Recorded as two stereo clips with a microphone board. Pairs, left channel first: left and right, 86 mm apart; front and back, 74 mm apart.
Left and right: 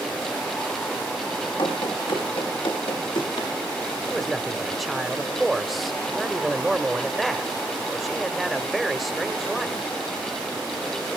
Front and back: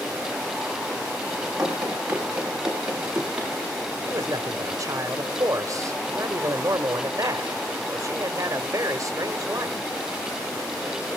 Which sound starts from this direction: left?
Running footsteps, at 1.6 s.